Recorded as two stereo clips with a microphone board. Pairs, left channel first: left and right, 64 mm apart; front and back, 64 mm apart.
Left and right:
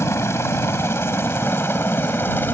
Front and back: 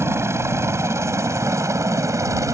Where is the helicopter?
135° left; by 2.5 s 145° left.